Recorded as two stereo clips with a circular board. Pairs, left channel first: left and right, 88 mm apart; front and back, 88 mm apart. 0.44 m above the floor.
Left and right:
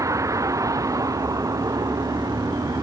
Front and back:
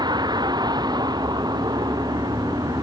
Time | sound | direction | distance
0.0 | a vehicle | 145° right | ?